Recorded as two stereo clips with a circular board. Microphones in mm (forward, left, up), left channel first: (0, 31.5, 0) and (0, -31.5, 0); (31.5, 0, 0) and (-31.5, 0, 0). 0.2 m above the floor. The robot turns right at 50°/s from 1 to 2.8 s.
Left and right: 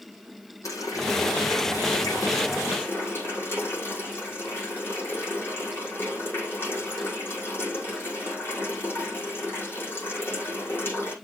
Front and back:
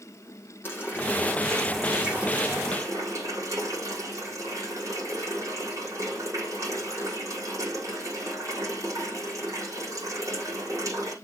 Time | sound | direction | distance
0.6 | a running tap | 55° left | 6 m